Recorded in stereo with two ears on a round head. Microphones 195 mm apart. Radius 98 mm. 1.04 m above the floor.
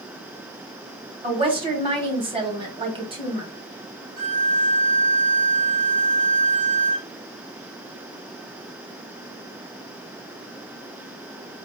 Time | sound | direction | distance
1.2 | a woman speaking | 25° right (ahead or behind) | 1.6 m
4.2 | a violin | 50° right (ahead or behind) | 3 m